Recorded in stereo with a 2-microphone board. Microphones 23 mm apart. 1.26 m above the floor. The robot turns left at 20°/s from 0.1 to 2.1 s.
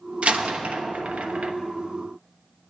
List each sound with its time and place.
0.2 s a door slam: 55° right (ahead or behind), 0.9 m; by 1.5 s 75° right (ahead or behind), 0.9 m